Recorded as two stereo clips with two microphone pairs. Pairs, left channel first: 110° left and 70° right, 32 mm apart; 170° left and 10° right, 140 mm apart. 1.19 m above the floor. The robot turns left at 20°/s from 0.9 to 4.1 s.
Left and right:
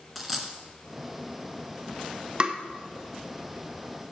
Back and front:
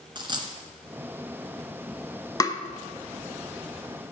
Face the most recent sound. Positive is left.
turn(degrees=-165)